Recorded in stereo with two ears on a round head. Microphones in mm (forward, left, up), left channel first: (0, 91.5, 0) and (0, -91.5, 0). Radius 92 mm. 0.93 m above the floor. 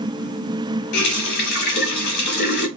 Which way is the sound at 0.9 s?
55° left (ahead or behind).